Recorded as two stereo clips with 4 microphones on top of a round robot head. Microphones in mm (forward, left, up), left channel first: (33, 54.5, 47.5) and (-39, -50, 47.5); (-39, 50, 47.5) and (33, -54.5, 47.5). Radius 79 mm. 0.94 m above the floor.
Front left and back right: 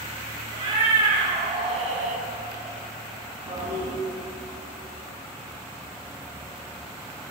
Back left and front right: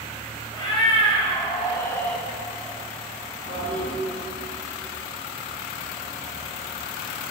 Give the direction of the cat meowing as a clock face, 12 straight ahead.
6 o'clock.